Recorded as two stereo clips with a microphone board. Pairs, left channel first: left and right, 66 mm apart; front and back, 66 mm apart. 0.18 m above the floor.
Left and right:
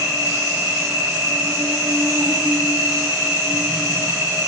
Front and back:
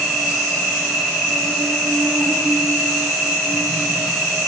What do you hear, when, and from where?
0.0 s an insect: 95° right, 4 m